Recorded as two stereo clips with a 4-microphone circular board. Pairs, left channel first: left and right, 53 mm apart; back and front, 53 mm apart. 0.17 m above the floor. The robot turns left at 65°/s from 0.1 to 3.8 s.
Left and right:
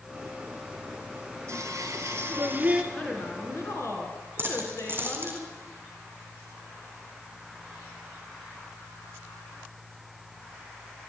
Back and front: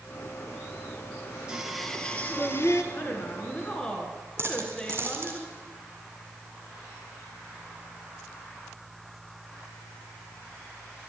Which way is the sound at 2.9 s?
160° left.